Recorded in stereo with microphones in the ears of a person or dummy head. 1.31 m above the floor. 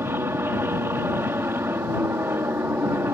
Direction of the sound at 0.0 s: 20° right (ahead or behind).